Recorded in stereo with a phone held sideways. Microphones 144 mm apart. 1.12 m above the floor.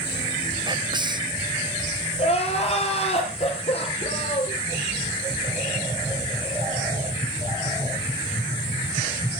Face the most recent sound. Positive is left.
turn(degrees=45)  # may be behind; listen again after turning